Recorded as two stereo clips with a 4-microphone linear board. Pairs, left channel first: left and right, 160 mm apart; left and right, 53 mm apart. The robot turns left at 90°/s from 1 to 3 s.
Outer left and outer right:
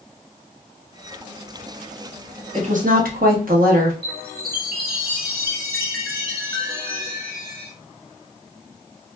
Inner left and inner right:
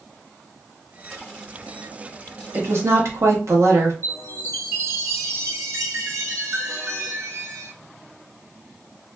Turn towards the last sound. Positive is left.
turn(degrees=-75)  # may be behind; listen again after turning